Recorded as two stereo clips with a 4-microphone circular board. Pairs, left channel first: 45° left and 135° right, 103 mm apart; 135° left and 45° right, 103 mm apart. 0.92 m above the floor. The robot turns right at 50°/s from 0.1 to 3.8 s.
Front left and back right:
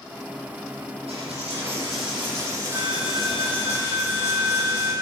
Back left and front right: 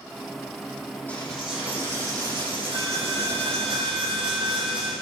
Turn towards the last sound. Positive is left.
turn(degrees=-20)